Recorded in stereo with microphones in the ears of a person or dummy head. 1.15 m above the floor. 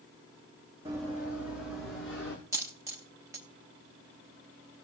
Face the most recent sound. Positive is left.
turn(degrees=-25)  # may be behind; listen again after turning